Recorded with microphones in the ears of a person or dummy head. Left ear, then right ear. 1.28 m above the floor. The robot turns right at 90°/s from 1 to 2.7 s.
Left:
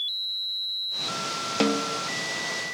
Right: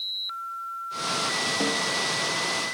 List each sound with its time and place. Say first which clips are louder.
1.6 s a snare drum: even; 85° left, 0.5 m; by 2.0 s 120° left, 0.5 m